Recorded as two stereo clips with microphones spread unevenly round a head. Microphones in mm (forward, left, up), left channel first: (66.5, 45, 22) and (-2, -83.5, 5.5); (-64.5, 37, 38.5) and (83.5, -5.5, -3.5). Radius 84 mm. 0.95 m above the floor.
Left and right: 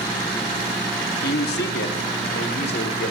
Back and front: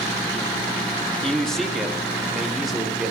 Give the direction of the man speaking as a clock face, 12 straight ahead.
10 o'clock.